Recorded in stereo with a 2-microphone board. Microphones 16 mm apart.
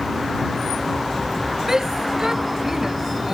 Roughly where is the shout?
Right.